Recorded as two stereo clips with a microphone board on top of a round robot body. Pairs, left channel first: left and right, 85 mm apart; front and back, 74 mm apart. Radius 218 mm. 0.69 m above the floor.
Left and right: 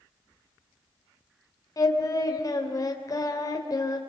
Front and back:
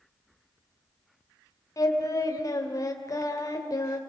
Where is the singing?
45° left, 2.5 m.